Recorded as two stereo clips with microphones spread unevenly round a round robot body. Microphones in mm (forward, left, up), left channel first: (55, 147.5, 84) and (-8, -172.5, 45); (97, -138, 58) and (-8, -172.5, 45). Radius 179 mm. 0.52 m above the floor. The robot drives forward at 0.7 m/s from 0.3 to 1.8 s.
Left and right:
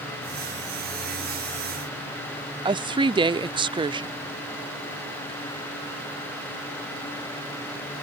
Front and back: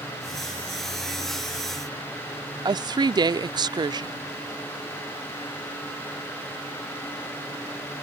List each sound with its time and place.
2.6 s a woman speaking: 165° right